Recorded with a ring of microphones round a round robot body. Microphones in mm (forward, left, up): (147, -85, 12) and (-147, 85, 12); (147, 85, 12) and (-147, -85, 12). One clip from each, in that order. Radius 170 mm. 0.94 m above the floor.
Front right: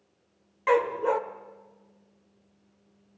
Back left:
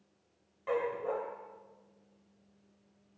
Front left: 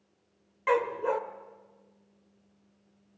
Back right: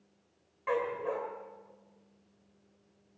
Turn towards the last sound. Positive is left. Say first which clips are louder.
# front right 10 dB, front left 5 dB
turn(degrees=-15)